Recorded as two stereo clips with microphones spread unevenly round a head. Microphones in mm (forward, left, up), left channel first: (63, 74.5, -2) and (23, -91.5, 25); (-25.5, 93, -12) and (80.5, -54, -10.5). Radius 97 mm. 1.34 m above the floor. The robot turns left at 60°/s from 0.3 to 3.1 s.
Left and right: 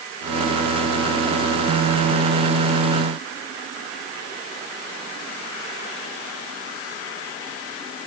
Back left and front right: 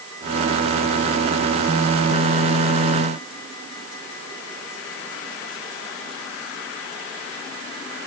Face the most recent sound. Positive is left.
No sound to turn to.